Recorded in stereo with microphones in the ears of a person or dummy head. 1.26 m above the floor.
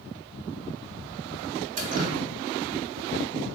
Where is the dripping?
45° right (ahead or behind), 1.4 m.